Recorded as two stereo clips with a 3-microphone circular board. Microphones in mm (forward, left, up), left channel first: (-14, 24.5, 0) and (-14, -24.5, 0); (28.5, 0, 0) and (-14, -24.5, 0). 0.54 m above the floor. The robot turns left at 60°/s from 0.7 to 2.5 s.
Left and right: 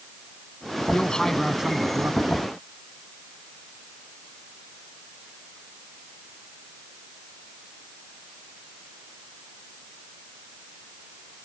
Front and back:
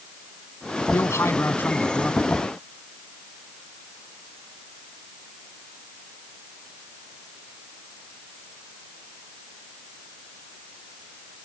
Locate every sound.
0.9 s a man speaking: 35° left; by 2.4 s 55° right